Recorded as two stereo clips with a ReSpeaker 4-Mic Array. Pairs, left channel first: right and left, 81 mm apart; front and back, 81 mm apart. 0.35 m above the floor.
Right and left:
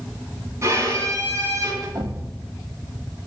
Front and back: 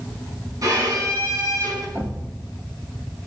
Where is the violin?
140° left, 4 m.